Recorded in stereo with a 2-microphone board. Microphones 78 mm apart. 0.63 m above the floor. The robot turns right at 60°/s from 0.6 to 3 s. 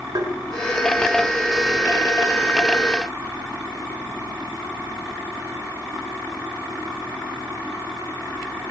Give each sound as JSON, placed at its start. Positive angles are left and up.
{"t": 0.1, "sound": "tapping", "side_deg": -50, "distance_m": 2.5}